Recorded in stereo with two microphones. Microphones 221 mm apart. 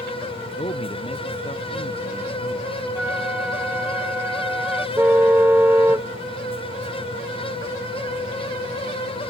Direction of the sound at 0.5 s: 25° left (ahead or behind).